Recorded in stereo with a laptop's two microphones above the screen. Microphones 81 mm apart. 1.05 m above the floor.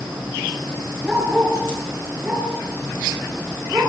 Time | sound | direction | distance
1.0 | a dog barking | 10° right (ahead or behind) | 7.5 m